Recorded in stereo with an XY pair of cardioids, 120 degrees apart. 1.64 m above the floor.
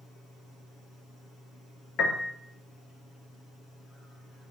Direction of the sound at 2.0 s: 70° left.